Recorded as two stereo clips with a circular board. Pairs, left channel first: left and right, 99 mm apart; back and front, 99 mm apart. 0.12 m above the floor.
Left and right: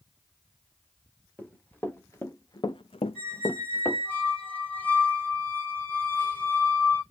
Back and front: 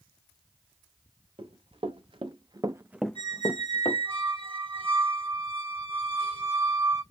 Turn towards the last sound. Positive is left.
turn(degrees=15)